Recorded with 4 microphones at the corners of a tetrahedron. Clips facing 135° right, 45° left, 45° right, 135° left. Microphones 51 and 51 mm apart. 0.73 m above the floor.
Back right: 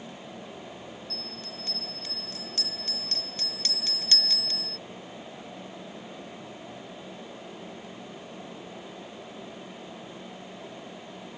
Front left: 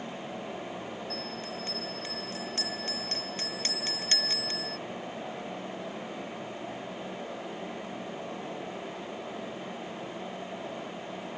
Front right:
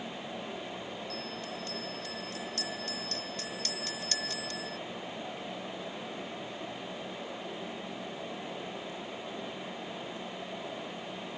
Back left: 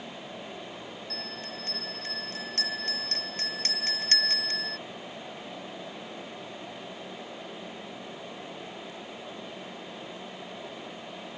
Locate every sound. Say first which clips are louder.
1.1 s a bell: front left 4 dB, even; 100° left